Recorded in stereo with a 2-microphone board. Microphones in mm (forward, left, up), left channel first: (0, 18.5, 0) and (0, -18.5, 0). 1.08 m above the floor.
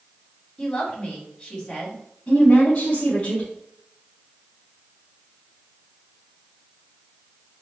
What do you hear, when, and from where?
0.6 s a woman speaking: 25° left (ahead or behind), 2.5 m
2.3 s a woman speaking: 45° left (ahead or behind), 2.5 m